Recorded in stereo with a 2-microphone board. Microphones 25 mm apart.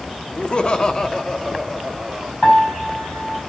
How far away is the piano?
About 9 m.